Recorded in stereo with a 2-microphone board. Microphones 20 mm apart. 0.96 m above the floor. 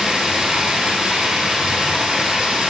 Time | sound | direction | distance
0.0 | running water | 55° right (ahead or behind) | 1.9 m